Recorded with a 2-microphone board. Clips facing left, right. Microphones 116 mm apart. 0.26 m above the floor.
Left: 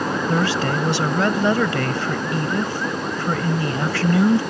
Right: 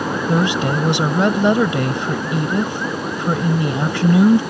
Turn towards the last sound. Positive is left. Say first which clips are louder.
# right 4 dB
turn(degrees=-20)  # may be behind; listen again after turning